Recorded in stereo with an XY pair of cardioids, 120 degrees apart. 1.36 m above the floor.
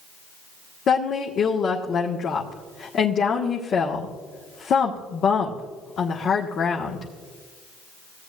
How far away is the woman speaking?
About 1.5 m.